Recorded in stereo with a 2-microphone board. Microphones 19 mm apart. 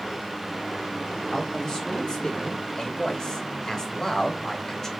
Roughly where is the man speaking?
Left.